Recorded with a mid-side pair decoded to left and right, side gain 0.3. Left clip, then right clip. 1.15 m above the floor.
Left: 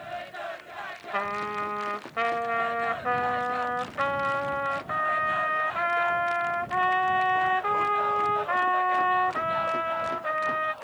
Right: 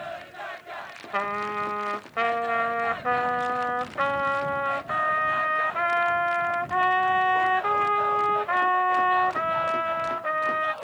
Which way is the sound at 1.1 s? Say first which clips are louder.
Right 2 dB; 20° right.